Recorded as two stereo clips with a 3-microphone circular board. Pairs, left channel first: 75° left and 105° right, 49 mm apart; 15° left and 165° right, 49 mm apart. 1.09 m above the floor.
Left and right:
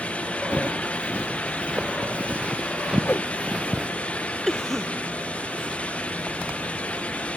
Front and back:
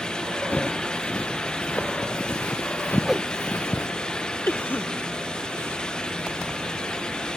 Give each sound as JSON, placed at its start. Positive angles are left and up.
{"t": 0.5, "sound": "footsteps", "azimuth_deg": -40}
{"t": 3.0, "sound": "a whoosh", "azimuth_deg": 115}
{"t": 4.5, "sound": "a cough", "azimuth_deg": -5}